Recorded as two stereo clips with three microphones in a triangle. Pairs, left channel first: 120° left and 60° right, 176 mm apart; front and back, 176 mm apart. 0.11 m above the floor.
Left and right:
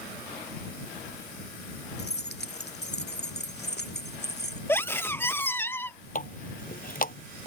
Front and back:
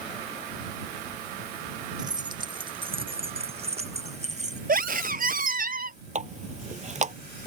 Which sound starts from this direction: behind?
A scream, at 4.7 s.